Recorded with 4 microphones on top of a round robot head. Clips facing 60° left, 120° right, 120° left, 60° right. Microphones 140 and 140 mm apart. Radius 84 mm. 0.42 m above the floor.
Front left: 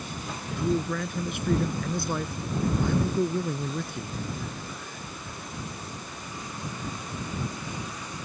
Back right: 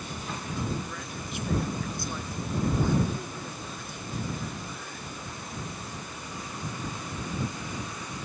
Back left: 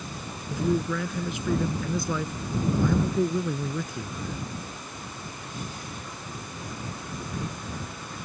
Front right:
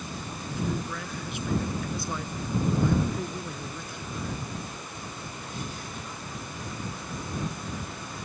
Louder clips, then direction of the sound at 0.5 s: Front left 9 dB, back left 7 dB; 105° left.